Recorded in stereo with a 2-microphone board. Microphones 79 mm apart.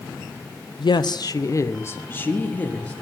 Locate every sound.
0.8 s a woman speaking: 80° left, 0.7 m; by 2.9 s 15° left (ahead or behind), 1.8 m